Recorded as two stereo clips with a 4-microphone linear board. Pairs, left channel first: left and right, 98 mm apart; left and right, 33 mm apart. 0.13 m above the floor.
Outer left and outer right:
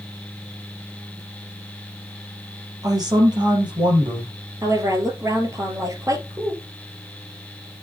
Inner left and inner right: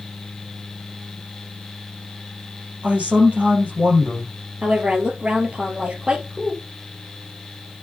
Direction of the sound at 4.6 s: 35° right (ahead or behind).